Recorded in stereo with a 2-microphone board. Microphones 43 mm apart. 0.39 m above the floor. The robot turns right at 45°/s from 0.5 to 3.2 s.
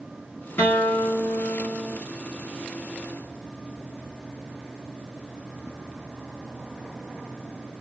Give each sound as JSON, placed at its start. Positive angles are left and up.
{"t": 0.6, "sound": "a guitar", "azimuth_deg": 85, "distance_m": 3.5}